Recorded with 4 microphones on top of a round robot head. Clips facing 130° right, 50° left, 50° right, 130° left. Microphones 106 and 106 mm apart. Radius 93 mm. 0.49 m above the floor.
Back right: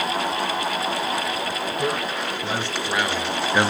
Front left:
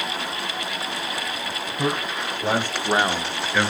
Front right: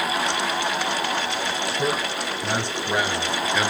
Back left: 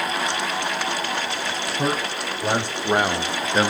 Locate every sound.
1.8 s a man speaking: 80° left, 2.5 m; by 3.7 s straight behind, 0.9 m